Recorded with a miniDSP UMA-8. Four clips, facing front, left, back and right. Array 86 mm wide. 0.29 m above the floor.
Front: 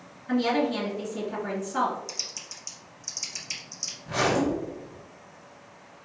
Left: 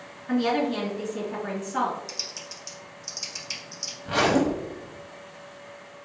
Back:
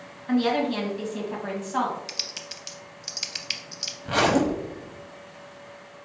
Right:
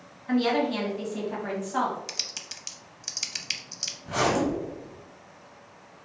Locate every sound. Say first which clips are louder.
0.3 s a woman speaking: even, back 1 dB; 150° right, 1.8 m
2.1 s typing on a keyboard: left 3 dB, back 3 dB; 140° right, 0.5 m
4.0 s a zipper: left 3 dB, back 3 dB; 160° left, 0.8 m